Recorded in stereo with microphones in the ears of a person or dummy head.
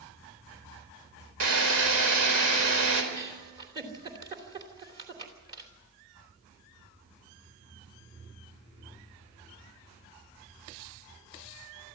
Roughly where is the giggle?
Right.